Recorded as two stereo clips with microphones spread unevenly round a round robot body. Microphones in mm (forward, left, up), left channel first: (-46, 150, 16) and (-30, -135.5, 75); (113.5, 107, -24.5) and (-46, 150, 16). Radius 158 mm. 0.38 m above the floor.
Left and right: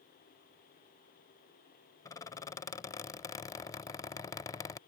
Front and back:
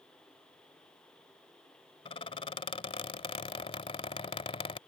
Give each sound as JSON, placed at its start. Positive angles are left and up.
{"t": 2.0, "sound": "a squeak", "azimuth_deg": 25}